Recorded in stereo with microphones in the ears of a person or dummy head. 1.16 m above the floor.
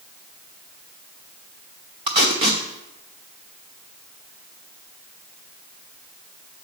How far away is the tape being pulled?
About 0.6 m.